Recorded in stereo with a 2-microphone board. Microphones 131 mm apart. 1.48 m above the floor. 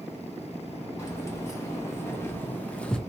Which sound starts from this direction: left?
Keys jangling, at 1.0 s.